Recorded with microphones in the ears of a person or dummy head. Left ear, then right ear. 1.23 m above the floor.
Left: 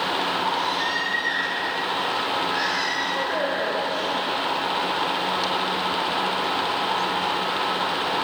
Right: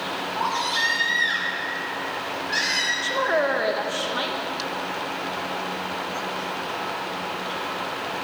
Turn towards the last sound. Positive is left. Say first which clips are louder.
# right 2 dB
turn(degrees=-50)  # may be behind; listen again after turning